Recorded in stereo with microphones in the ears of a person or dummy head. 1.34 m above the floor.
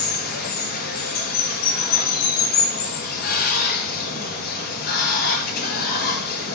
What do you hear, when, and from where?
0.0 s running water: 55° left (ahead or behind), 1.8 m